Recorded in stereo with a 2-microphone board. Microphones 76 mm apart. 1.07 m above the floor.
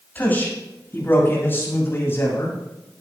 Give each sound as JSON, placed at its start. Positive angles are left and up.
{"t": 0.1, "sound": "a man speaking", "side_deg": 20, "distance_m": 7.0}